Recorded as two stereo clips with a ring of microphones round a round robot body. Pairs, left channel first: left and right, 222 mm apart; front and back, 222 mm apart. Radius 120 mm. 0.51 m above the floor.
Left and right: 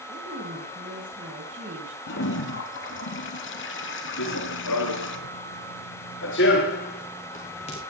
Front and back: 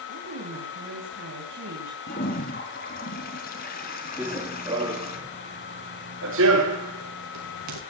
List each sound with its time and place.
0.1 s a woman speaking: 150° right, 3.5 m
2.1 s a toilet flushing: 55° left, 3 m
4.2 s running footsteps: 95° left, 3.5 m; by 7.8 s 160° left, 4.5 m